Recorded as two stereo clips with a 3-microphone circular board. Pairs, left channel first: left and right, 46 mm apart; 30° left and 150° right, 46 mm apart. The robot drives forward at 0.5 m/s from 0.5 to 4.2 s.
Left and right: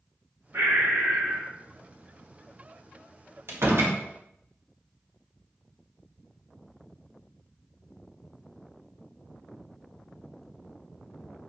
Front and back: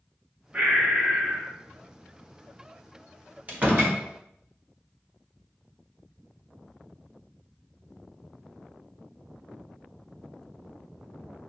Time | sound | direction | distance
0.5 | breathing | 80° right | 2 m
3.5 | a door slam | 95° right | 1.8 m